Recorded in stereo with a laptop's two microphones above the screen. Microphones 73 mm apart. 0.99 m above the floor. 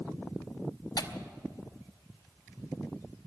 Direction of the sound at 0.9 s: 60° left (ahead or behind).